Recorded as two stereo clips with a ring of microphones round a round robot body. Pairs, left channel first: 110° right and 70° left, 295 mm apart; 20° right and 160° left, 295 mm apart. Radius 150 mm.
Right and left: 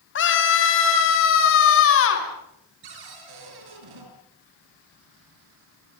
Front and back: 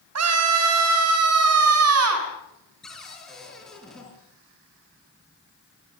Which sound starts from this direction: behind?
A scream, at 0.1 s.